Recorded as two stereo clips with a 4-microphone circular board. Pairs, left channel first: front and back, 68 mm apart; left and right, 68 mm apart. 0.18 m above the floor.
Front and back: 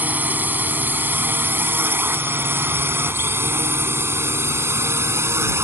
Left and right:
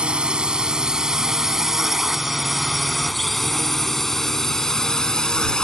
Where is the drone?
150° right; by 5.6 s 165° left.